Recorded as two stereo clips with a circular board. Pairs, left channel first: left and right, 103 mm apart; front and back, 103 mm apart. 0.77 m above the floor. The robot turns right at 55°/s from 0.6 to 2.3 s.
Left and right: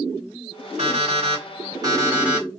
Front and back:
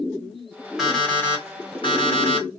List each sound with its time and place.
0.8 s an alarm clock: 95° right, 1.3 m; by 2.6 s 10° right, 1.3 m